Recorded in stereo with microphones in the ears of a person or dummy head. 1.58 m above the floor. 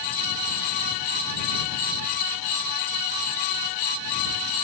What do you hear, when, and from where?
Only background noise.